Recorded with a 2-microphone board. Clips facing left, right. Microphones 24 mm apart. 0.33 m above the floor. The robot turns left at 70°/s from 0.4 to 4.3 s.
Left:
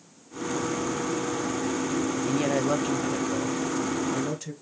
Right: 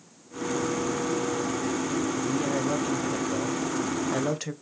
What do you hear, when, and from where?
2.3 s a woman speaking: 65° left, 1.5 m; by 4.5 s 75° right, 1.5 m